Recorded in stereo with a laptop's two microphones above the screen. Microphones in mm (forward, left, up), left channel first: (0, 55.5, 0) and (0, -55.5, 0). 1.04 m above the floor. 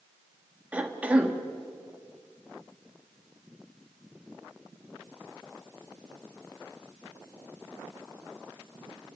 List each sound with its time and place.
0.7 s a cough: 10° right (ahead or behind), 1.6 m